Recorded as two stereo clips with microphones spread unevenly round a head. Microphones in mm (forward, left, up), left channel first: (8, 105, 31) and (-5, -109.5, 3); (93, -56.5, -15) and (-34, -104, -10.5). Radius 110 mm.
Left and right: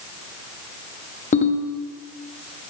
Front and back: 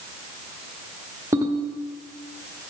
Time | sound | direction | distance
1.3 | a ringtone | 130° left | 0.8 m